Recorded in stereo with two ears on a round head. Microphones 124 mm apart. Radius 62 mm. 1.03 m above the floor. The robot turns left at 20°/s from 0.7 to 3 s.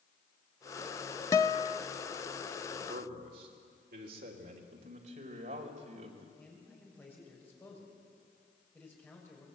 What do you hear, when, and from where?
1.3 s a guitar: 20° left (ahead or behind), 0.6 m; by 1.8 s 30° left (ahead or behind), 0.6 m
2.7 s a man speaking: 60° right (ahead or behind), 3 m; by 4.6 s 65° right (ahead or behind), 3 m
4.7 s a man speaking: 55° right (ahead or behind), 3.5 m
6.4 s a man speaking: 15° left (ahead or behind), 6 m